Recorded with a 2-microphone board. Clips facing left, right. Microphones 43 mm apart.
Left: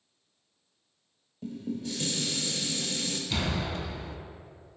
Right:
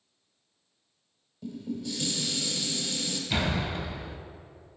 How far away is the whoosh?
I don't hear a whoosh.